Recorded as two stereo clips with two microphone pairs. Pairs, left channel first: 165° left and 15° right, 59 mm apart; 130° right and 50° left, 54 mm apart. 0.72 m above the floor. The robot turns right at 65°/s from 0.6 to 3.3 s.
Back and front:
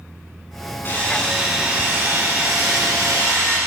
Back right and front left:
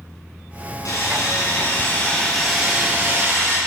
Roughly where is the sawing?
Behind right.